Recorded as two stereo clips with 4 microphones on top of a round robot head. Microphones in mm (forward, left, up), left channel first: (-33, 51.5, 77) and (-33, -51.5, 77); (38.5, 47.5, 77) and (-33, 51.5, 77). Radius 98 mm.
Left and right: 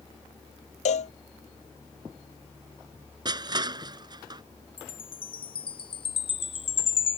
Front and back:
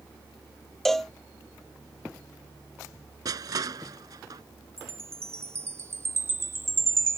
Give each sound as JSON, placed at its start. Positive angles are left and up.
{"t": 0.8, "sound": "a cowbell", "azimuth_deg": 85}
{"t": 3.2, "sound": "crushing", "azimuth_deg": -135}
{"t": 4.8, "sound": "a chime", "azimuth_deg": 125}